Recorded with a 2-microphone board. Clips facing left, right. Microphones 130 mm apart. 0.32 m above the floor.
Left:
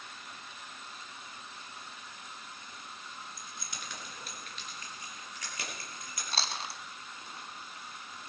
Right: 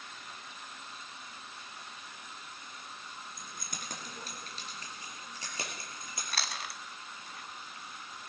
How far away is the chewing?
About 1.2 m.